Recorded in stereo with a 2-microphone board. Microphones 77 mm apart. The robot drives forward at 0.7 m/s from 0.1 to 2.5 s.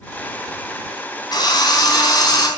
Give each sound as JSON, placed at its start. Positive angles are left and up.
{"t": 1.3, "sound": "a drill", "side_deg": 65, "distance_m": 4.0}